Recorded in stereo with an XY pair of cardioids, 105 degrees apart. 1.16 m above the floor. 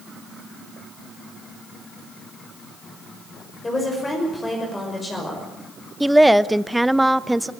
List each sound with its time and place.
3.6 s a woman speaking: 25° left, 5.5 m
6.0 s a woman speaking: 5° right, 0.8 m